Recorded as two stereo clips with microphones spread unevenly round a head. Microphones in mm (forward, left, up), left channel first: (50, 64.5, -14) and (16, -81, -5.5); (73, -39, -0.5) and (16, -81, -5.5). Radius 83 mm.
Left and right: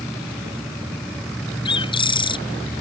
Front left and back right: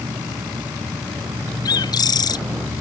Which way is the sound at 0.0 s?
165° left.